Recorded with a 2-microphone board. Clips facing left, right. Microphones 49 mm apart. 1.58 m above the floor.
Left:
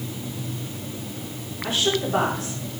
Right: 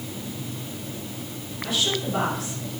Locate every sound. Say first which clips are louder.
1.6 s a woman speaking: left 3 dB; 35° left (ahead or behind), 5 m